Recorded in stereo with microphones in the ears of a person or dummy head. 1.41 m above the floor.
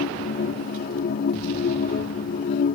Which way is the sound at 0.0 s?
55° left (ahead or behind).